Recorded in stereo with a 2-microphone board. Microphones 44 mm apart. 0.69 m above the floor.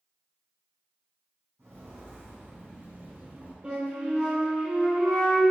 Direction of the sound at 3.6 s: 30° right (ahead or behind).